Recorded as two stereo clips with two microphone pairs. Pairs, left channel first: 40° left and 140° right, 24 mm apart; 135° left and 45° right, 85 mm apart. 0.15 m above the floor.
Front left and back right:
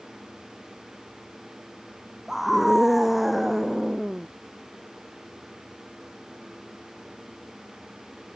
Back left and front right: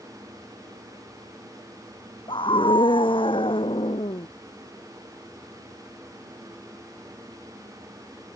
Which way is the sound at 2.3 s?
140° left.